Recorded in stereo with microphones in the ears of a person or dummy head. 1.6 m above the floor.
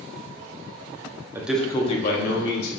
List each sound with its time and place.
1.4 s a man speaking: 20° right (ahead or behind), 0.9 m; by 2.7 s 70° left (ahead or behind), 1.7 m